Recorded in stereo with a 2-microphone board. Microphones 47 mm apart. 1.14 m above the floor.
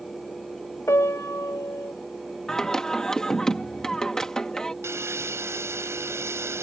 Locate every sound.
0.9 s a piano: 75° left (ahead or behind)
2.5 s singing: 10° left (ahead or behind)
4.8 s sawing: 70° right (ahead or behind)